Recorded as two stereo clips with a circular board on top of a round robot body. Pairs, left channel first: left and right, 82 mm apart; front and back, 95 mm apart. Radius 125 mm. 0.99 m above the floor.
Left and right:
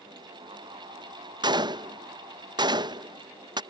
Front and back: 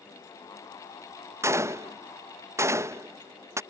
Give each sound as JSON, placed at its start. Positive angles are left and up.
{"t": 1.4, "sound": "a gunshot", "azimuth_deg": -120}